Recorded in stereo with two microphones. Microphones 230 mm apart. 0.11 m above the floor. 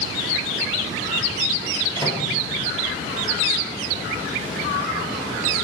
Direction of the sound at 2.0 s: 15° left (ahead or behind).